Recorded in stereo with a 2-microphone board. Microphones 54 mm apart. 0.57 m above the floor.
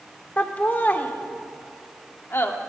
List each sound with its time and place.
0.4 s laughter: 30° left (ahead or behind), 1.6 m; by 2.5 s 45° left (ahead or behind), 1.2 m